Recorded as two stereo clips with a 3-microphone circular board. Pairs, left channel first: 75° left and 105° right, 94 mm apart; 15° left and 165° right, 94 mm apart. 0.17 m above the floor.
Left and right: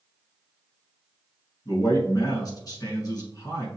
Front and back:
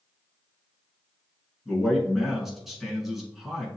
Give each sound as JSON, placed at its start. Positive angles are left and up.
{"t": 1.6, "sound": "a man speaking", "azimuth_deg": 110, "distance_m": 1.7}